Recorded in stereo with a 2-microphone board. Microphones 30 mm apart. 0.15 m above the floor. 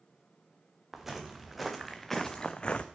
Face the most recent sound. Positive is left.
turn(degrees=45)  # may be behind; listen again after turning